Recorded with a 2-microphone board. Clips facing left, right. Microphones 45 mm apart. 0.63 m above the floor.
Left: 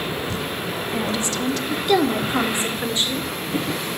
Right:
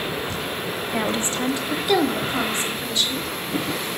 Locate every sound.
0.9 s a woman speaking: 40° right (ahead or behind), 1.0 m; by 3.3 s 35° left (ahead or behind), 1.8 m